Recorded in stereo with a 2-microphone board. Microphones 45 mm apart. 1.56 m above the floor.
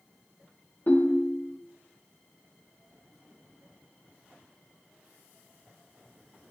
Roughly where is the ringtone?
Left.